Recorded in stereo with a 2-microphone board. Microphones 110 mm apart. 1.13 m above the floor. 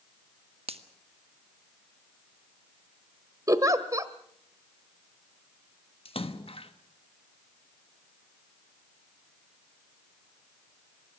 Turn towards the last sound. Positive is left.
turn(degrees=60)  # may be behind; listen again after turning